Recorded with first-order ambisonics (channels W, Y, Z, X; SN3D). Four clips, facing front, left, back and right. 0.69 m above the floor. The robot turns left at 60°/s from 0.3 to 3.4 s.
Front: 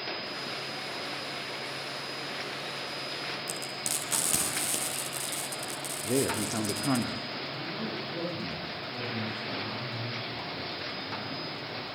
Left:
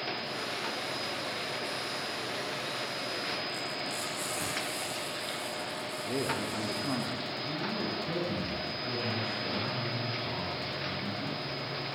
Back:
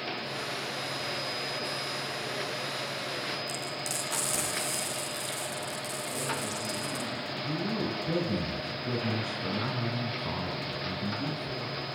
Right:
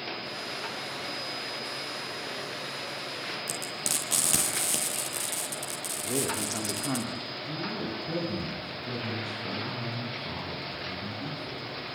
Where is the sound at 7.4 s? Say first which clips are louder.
Right 1 dB, back 4 dB; 175° right, 7 m.